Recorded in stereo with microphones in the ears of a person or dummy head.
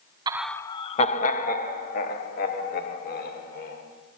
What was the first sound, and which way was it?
Laughter, 25° right (ahead or behind).